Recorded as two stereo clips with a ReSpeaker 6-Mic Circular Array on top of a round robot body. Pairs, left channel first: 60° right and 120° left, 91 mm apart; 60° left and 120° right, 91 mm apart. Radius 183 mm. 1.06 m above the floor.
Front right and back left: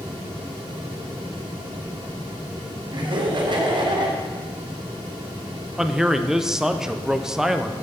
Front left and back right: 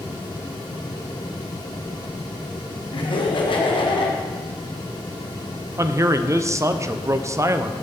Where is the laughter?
85° left, 2 m.